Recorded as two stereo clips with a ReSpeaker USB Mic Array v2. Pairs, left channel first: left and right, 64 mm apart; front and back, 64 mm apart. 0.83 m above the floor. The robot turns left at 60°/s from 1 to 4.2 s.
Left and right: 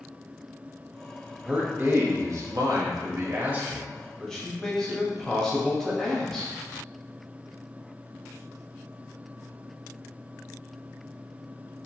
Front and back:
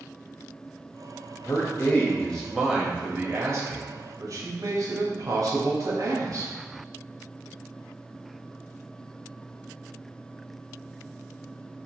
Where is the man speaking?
25° right, 1.1 m; by 6.5 s 170° left, 1.1 m.